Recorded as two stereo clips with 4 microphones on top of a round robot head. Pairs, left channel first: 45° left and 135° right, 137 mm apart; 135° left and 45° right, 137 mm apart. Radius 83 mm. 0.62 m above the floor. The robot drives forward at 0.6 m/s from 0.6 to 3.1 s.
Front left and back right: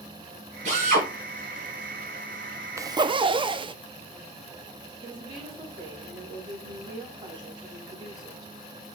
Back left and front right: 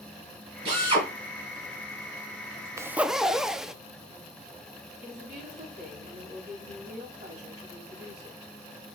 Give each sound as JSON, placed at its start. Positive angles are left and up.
{"t": 0.7, "sound": "a drill", "azimuth_deg": -95, "distance_m": 5.0}
{"t": 2.8, "sound": "a zipper", "azimuth_deg": -90, "distance_m": 0.5}
{"t": 5.0, "sound": "a woman speaking", "azimuth_deg": -75, "distance_m": 5.0}